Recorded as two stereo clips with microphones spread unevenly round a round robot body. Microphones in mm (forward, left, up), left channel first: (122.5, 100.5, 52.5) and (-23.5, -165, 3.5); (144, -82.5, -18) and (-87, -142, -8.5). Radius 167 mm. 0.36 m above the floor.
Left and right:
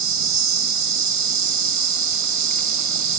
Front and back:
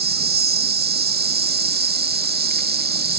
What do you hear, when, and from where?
0.0 s an insect: 120° right, 1.3 m